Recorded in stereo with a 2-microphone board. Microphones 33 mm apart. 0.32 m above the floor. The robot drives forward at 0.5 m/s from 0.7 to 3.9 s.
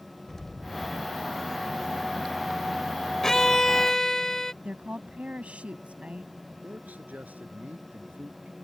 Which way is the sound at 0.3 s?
10° left (ahead or behind).